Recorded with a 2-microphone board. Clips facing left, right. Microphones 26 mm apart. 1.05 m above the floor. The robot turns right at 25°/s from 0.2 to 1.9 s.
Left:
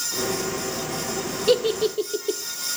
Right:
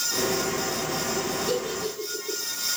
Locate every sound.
1.5 s a giggle: 70° left (ahead or behind), 1.0 m; by 2.4 s 65° left (ahead or behind), 1.0 m